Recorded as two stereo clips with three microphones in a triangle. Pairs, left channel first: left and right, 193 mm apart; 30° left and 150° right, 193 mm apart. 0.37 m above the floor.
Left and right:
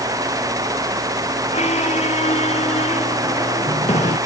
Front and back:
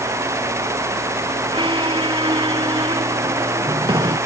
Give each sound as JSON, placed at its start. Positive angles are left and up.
{"t": 1.5, "sound": "a squeak", "azimuth_deg": 145}